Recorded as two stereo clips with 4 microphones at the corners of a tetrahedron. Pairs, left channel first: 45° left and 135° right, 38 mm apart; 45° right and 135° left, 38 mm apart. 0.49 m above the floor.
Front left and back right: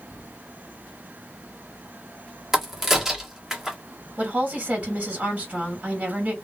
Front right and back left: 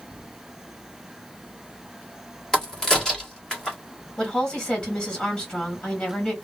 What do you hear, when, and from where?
2.5 s a crack: 75° right, 1.2 m
4.2 s a woman speaking: 95° right, 1.8 m